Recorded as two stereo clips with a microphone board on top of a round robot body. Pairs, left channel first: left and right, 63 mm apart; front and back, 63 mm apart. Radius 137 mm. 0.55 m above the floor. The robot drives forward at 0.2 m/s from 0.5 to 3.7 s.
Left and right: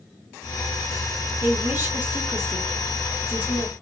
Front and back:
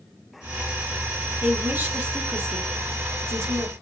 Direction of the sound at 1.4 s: 125° right.